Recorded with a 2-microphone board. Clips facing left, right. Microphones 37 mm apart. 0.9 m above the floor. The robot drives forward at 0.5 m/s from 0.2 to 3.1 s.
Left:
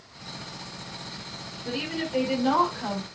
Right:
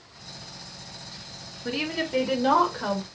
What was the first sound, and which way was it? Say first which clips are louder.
A woman speaking: right 2 dB; 40° right (ahead or behind).